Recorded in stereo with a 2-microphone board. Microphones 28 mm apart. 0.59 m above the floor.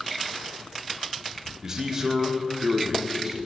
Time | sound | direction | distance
1.6 | a man speaking | 15° right (ahead or behind) | 0.9 m